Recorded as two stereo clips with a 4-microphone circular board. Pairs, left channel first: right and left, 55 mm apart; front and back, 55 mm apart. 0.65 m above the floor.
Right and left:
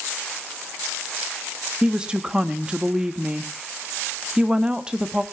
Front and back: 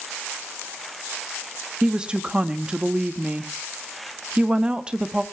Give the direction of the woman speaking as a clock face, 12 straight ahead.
7 o'clock.